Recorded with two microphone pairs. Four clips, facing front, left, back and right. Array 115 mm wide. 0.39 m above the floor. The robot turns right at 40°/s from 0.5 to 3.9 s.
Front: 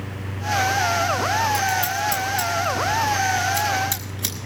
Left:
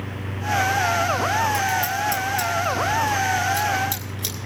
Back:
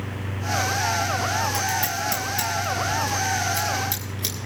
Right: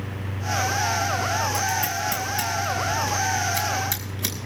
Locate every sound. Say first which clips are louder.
1.5 s scissors: left 3 dB, front 4 dB; 145° right, 4.5 m; by 4.3 s 50° right, 4.5 m